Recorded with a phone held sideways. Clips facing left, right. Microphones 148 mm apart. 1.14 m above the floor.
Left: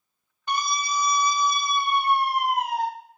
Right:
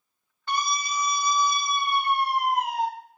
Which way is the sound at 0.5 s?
15° left (ahead or behind).